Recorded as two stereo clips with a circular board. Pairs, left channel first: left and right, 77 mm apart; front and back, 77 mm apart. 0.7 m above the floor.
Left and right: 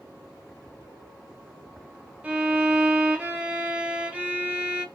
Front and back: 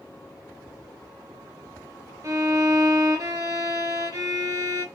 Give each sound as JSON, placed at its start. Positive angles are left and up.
{"t": 2.2, "sound": "a violin", "azimuth_deg": -160, "distance_m": 1.2}